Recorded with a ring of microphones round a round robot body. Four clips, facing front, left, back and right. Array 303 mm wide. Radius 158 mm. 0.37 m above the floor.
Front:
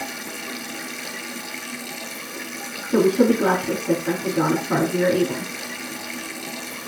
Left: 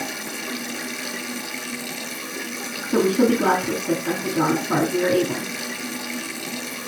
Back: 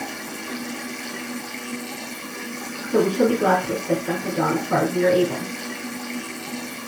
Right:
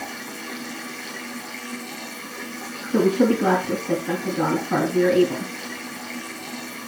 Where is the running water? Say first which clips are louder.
Left 3 dB, back 1 dB; 60° left, 1.2 m.